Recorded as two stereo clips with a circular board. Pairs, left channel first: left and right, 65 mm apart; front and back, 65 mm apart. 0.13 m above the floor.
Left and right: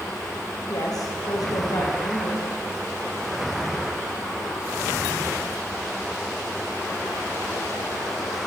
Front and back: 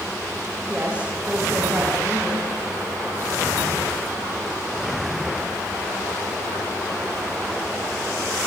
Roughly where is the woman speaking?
Left.